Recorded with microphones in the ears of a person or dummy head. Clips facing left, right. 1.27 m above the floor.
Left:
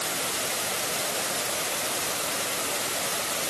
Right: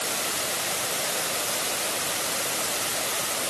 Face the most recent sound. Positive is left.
No sound to turn to.